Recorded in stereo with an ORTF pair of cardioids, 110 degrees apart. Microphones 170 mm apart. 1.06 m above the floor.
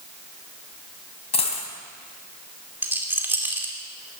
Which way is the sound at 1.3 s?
40° left.